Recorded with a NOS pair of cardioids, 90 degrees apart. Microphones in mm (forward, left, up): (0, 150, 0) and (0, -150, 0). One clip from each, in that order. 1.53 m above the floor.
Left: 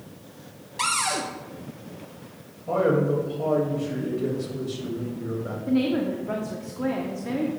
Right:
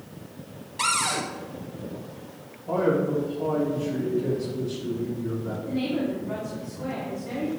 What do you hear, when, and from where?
0.8 s a cupboard door: 10° left, 0.9 m
2.7 s a man speaking: 35° left, 2.5 m
5.7 s a woman speaking: 60° left, 1.2 m